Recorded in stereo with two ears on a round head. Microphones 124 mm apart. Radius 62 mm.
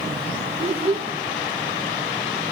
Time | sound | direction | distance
0.6 | a child speaking | 45° right (ahead or behind) | 1.4 m